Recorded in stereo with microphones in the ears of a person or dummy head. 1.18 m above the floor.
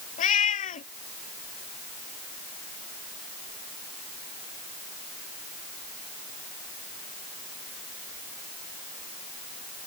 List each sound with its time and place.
0.2 s a cat meowing: 40° left (ahead or behind)